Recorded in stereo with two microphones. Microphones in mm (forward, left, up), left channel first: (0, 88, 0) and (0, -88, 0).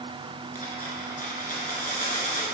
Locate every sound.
0.6 s a dropped coin: 50° left (ahead or behind), 1.2 m